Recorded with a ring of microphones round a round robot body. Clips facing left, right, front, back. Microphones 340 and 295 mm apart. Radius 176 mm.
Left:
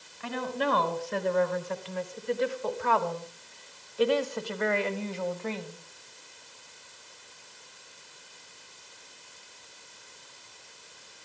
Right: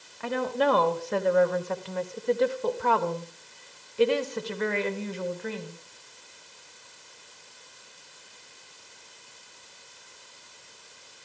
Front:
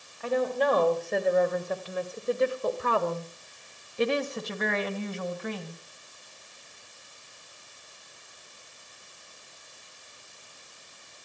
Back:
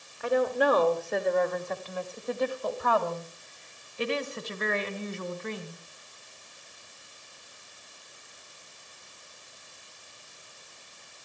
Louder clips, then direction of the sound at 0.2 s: Right 5 dB, back 1 dB; 105° right.